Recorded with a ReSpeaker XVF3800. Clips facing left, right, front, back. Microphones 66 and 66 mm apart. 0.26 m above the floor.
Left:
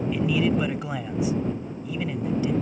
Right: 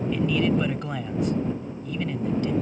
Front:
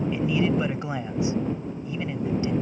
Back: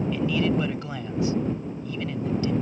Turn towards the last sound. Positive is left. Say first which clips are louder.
# even, even
turn(degrees=20)